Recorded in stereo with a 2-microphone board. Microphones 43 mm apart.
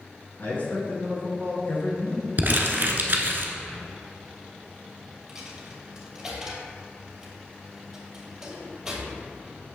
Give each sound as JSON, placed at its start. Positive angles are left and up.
{"t": 0.4, "sound": "a man speaking", "side_deg": 45, "distance_m": 2.5}
{"t": 2.4, "sound": "crumpling", "side_deg": -45, "distance_m": 0.9}
{"t": 5.3, "sound": "a dropped coin", "side_deg": -10, "distance_m": 1.9}